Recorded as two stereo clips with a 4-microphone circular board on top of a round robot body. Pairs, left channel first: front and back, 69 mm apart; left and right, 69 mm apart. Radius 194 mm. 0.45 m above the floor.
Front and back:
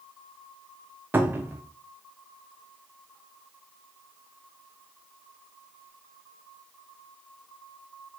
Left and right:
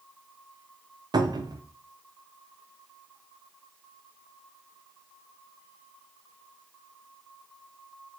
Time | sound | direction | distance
1.1 | a cupboard door | 115° right | 0.5 m